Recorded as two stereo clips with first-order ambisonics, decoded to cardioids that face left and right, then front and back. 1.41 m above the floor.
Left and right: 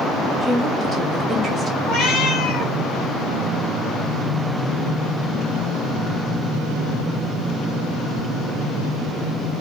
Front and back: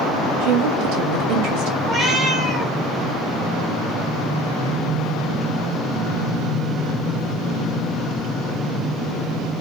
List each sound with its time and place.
0.4 s a woman speaking: 165° right, 0.7 m
1.8 s a cat meowing: 110° left, 1.6 m